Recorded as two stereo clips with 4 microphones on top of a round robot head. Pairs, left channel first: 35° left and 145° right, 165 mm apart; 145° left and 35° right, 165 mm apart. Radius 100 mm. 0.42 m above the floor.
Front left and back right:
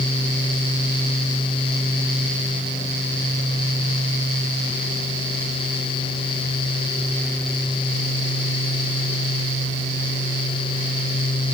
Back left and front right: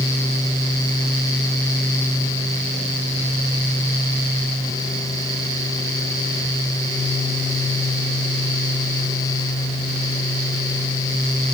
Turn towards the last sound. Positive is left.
No sound to turn to.